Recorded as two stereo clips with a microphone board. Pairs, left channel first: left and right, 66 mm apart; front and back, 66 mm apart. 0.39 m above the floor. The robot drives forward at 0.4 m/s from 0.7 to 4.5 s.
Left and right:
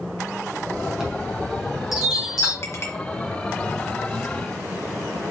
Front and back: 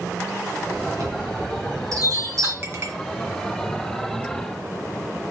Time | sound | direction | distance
1.0 | a chime | 170° right | 2.5 m
2.6 | a clink | 135° left | 2.0 m